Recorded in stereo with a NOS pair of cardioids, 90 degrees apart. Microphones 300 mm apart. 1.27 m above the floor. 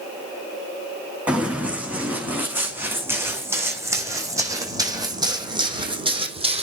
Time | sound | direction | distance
1.3 | running footsteps | 5° right | 6.5 m